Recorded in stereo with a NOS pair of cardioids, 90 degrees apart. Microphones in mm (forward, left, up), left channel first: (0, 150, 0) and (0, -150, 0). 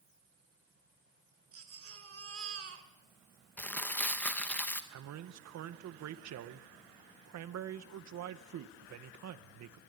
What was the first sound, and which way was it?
A baby crying, 50° right.